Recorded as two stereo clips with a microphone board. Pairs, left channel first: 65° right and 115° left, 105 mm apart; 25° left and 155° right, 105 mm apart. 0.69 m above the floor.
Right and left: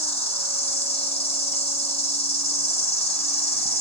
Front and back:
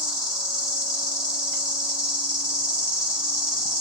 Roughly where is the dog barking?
No dog barking in this recording.